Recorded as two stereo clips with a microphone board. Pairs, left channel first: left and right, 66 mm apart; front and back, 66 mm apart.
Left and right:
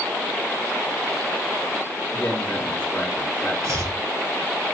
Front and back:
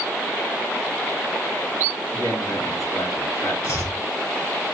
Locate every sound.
2.1 s a man speaking: 35° left, 4 m
3.6 s chopping: 50° right, 3 m